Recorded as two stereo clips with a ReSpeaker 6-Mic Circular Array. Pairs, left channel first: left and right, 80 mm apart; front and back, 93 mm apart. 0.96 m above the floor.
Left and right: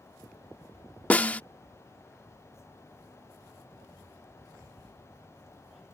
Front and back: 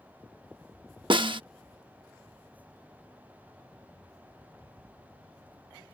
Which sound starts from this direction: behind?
A snare drum, at 1.1 s.